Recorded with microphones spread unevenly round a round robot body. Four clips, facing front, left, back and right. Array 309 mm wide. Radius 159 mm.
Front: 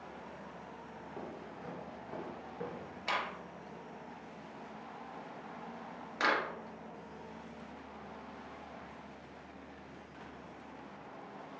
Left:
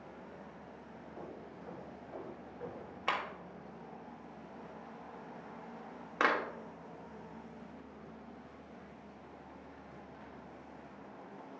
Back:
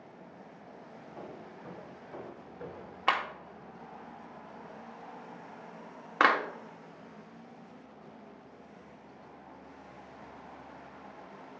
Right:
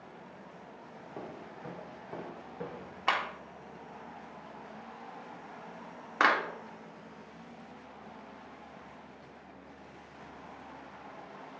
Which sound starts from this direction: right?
Footsteps, at 1.2 s.